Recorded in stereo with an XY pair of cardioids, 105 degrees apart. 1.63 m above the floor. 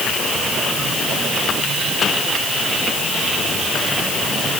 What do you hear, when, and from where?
Only background noise.